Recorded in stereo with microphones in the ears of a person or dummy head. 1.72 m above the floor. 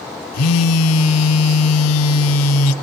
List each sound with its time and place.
0.3 s a phone buzzing: 85° left, 1.2 m